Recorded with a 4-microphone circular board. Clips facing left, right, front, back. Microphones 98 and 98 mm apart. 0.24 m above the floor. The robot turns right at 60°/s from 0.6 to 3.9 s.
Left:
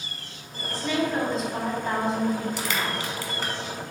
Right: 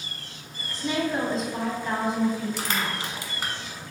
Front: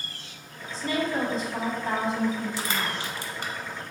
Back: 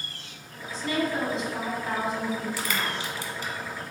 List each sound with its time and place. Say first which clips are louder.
0.7 s a woman speaking: left 1 dB, even; 35° right, 1.3 m; by 3.0 s 100° left, 1.3 m
2.6 s crushing: left 1 dB, even; 60° right, 0.7 m; by 3.5 s 5° right, 0.7 m